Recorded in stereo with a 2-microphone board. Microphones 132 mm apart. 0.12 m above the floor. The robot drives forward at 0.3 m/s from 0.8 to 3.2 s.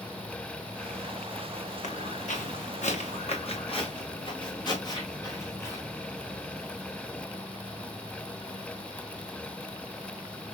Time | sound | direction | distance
1.8 | footsteps | 75° left (ahead or behind) | 1.8 m